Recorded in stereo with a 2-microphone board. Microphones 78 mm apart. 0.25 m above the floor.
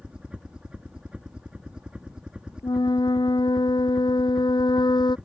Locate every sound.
0.0 s a helicopter: 10° right (ahead or behind)
2.6 s a flute: 70° left (ahead or behind)